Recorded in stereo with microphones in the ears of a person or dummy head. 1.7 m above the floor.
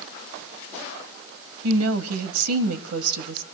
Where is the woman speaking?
85° right, 1.0 m.